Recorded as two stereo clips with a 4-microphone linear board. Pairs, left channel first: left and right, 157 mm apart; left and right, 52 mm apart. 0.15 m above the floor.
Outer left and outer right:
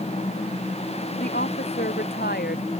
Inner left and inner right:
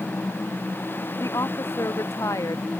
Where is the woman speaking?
85° left.